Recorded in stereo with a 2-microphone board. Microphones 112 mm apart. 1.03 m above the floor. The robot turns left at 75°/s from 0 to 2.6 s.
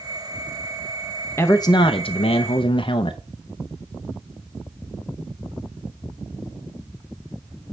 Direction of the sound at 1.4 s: 155° left.